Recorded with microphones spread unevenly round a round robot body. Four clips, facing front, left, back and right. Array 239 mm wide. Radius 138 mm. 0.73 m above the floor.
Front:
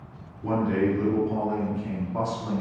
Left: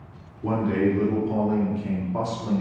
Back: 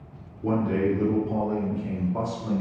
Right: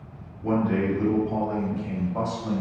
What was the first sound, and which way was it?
A man speaking, 125° left.